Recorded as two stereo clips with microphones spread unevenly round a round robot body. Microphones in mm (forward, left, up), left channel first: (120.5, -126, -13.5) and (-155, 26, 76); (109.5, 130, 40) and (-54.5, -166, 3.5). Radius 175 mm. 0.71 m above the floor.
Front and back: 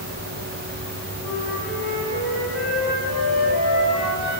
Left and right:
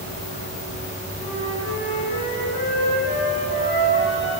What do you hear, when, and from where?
1.2 s a flute: 55° left, 4.5 m